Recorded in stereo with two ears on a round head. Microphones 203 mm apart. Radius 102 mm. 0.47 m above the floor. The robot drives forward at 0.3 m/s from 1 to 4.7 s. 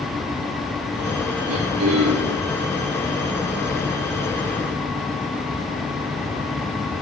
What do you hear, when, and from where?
1.5 s throat clearing: 75° right (ahead or behind), 4 m; by 2.4 s 70° right (ahead or behind), 4 m